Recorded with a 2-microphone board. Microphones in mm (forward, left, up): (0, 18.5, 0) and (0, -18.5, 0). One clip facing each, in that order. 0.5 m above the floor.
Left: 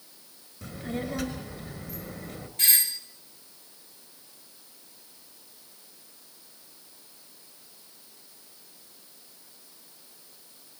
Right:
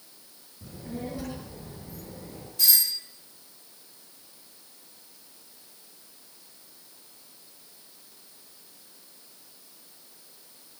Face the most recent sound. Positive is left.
turn(degrees=45)  # may be behind; listen again after turning